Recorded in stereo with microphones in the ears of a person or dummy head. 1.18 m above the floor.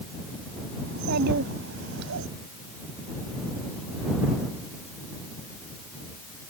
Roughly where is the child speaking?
Right.